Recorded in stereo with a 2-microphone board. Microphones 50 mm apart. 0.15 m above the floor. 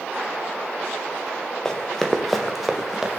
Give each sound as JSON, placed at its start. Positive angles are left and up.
{"t": 1.6, "sound": "running footsteps", "side_deg": 10, "distance_m": 2.5}